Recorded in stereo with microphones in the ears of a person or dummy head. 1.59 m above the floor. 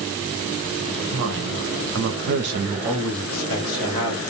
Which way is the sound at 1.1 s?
65° right (ahead or behind).